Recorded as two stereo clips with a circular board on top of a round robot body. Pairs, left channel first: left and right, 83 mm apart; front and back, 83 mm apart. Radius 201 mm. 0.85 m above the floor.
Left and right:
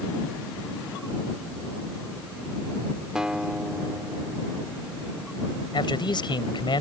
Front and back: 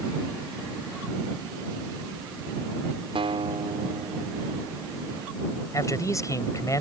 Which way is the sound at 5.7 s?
55° left.